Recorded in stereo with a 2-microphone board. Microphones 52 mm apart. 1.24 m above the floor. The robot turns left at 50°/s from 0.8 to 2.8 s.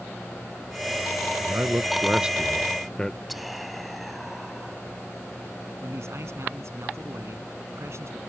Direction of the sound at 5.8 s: 60° right (ahead or behind).